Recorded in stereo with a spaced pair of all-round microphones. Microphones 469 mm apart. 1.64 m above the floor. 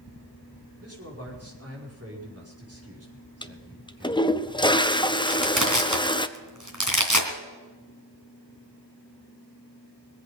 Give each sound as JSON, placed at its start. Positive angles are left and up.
{"t": 0.8, "sound": "a man speaking", "side_deg": -30, "distance_m": 5.0}
{"t": 3.4, "sound": "a toilet flushing", "side_deg": 10, "distance_m": 0.7}
{"t": 5.3, "sound": "crushing", "side_deg": -40, "distance_m": 2.5}